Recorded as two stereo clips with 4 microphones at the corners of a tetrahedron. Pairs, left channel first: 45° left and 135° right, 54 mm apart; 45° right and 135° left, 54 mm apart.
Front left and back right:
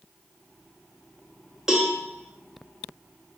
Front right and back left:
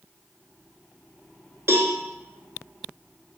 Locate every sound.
1.7 s a cowbell: 145° left, 0.5 m